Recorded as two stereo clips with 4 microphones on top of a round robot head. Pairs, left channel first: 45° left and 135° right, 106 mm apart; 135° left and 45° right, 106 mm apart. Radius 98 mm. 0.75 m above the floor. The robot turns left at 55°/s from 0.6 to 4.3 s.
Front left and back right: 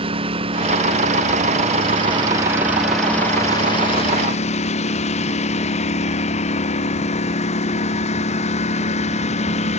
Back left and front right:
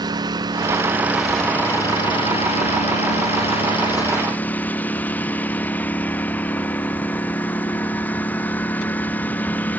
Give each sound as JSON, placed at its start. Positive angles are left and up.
{"t": 0.0, "sound": "a lawn mower", "azimuth_deg": -100}